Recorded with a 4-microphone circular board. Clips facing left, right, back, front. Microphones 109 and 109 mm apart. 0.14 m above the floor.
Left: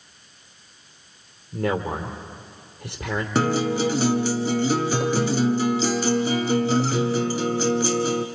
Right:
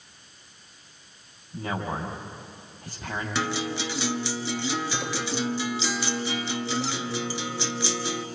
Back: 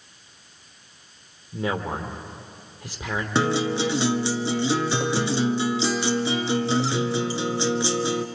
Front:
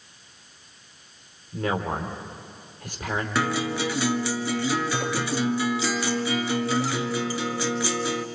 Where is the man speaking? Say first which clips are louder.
Left 6 dB, even; 100° left, 3 m.